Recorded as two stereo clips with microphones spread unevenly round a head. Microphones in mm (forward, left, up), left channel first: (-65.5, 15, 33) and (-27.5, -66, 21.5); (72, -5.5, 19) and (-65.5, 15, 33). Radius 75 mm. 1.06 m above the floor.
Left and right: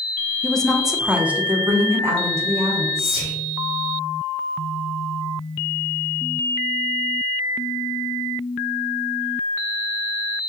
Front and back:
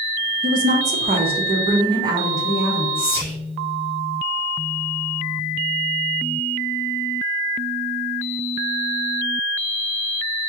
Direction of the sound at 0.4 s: 165° right.